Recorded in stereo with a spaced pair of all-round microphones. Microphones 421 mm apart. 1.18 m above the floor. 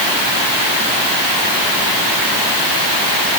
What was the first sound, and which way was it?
Only background noise.